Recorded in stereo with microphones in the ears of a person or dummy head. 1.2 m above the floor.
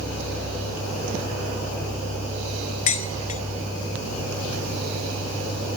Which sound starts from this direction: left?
Dishes clattering, at 2.9 s.